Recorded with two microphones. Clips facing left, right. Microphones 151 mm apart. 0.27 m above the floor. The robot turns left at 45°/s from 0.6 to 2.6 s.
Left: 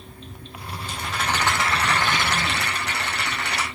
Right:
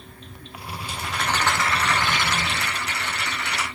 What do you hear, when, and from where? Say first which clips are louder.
0.8 s a rattle: even; 165° right, 3.5 m; by 3.7 s 115° left, 3.5 m